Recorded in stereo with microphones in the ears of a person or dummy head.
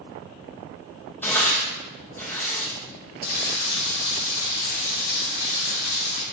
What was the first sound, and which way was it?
Tearing paper, 15° left (ahead or behind).